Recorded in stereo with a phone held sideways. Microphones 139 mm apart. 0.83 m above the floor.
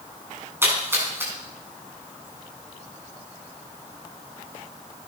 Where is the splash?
15° right (ahead or behind), 5 m.